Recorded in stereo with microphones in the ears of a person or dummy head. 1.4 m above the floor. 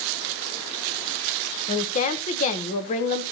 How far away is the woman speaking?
About 1.0 m.